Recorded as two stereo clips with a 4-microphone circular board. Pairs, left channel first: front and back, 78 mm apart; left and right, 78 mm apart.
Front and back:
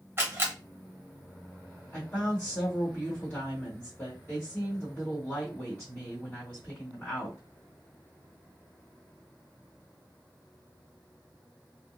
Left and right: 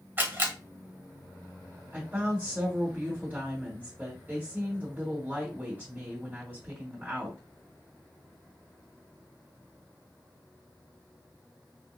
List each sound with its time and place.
0.2 s a camera shutter: 135° right, 1.0 m
1.9 s a woman speaking: 60° right, 1.7 m